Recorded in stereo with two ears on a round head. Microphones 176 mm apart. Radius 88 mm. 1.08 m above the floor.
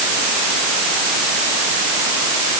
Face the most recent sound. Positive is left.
No sound to turn to.